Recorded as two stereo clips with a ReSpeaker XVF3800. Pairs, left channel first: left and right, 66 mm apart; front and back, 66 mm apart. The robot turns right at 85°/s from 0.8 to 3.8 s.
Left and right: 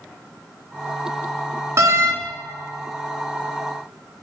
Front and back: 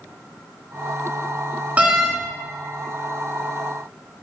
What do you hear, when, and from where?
1.8 s a door slam: 115° right, 1.7 m; by 2.1 s 85° right, 1.7 m